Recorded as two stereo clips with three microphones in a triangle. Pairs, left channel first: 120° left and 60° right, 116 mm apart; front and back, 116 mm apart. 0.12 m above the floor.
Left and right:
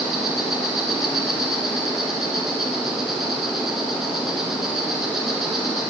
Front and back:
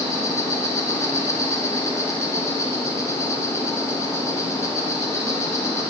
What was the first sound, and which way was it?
An insect, 25° left.